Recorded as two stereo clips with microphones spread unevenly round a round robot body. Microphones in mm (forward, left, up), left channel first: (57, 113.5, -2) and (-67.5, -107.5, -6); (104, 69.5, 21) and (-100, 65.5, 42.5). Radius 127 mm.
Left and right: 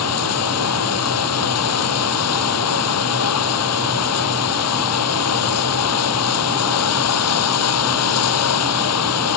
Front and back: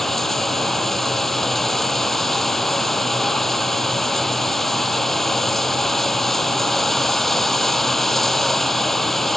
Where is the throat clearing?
I don't hear throat clearing.